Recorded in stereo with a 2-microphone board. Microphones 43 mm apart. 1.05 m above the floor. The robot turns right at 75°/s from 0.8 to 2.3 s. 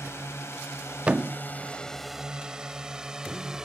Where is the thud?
25° right (ahead or behind); by 1.4 s 10° right (ahead or behind).